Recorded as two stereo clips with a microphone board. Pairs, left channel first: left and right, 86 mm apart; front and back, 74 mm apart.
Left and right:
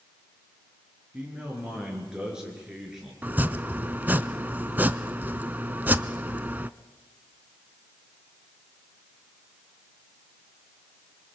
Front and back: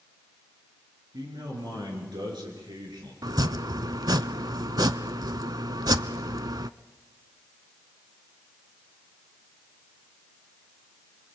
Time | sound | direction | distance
1.1 | a man speaking | 165° right | 6.5 m
3.2 | chopping | 155° right | 0.5 m